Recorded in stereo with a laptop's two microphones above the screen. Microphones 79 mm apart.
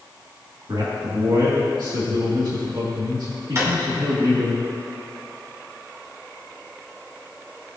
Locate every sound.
0.7 s a man speaking: 65° right (ahead or behind), 2 m
3.5 s a drawer: 35° right (ahead or behind), 2 m